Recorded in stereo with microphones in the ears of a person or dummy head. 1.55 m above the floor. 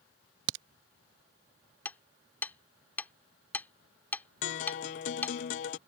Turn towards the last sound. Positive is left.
turn(degrees=40)  # may be behind; listen again after turning